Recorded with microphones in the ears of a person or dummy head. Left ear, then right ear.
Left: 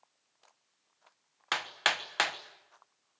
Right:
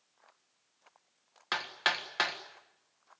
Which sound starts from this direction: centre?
Hammering, at 1.5 s.